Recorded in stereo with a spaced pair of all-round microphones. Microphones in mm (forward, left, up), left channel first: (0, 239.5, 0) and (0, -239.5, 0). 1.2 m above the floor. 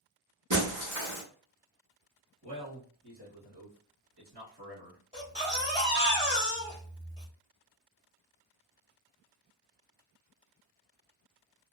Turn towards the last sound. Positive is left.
turn(degrees=-15)  # may be behind; listen again after turning